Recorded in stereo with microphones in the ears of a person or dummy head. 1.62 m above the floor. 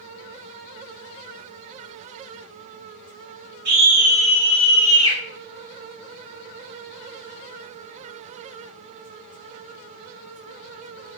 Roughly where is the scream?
Right.